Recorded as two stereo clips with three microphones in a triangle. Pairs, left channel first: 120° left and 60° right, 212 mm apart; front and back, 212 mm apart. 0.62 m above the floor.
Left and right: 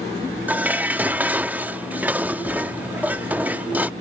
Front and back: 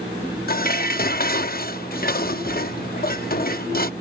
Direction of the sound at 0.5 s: 20° left.